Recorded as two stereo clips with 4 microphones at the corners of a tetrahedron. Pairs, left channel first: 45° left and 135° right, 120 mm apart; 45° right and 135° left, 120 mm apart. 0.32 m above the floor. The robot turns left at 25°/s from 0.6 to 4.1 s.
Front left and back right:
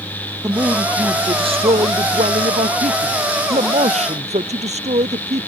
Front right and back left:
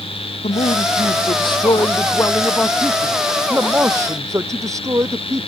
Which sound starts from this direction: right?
A man speaking, at 0.4 s.